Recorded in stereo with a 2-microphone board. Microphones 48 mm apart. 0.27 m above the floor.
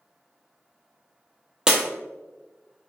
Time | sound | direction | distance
1.7 | breaking glass | 10° right (ahead or behind) | 0.9 m